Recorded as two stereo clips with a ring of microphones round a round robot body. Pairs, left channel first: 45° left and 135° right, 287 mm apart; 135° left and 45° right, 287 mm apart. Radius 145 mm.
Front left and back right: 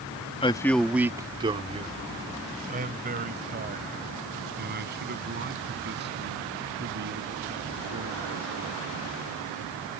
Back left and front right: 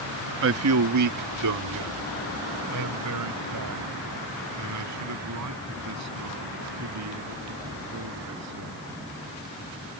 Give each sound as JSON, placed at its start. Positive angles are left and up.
{"t": 0.4, "sound": "a man speaking", "azimuth_deg": -20}